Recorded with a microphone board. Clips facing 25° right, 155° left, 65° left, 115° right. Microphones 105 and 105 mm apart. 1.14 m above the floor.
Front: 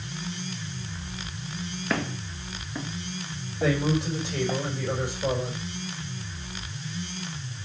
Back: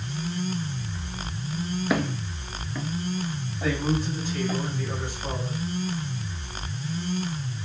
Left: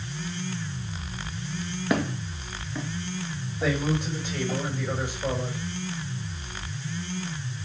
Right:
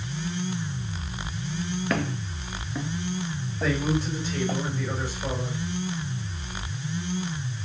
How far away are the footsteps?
About 1.1 m.